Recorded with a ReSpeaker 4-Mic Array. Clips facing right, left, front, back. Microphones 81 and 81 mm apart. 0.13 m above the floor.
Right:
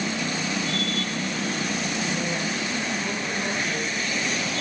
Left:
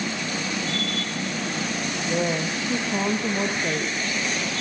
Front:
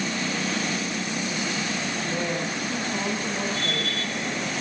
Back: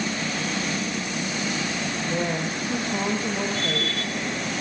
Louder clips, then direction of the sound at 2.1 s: Left 3 dB, back 3 dB; 105° left.